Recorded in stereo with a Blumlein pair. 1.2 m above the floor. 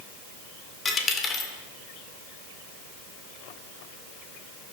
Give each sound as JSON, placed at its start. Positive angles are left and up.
{"t": 0.8, "sound": "a dropped coin", "azimuth_deg": 20, "distance_m": 1.8}